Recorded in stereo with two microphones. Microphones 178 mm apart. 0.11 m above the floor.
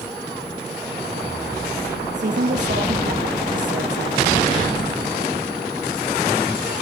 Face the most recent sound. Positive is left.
turn(degrees=-80)